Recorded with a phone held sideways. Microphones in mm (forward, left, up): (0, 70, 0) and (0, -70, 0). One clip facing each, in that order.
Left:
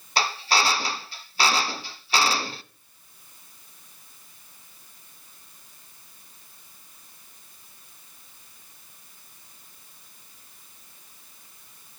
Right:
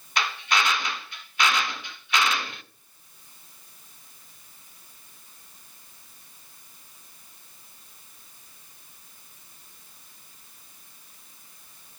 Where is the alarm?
No alarm in this recording.